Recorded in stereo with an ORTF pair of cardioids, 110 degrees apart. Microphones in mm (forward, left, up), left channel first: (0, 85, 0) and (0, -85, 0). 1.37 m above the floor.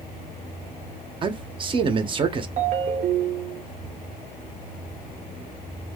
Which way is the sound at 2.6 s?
45° right.